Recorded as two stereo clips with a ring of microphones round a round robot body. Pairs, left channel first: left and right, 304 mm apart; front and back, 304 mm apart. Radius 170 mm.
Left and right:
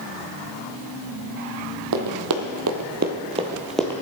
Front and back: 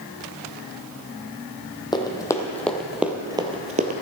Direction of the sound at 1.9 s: 75° right.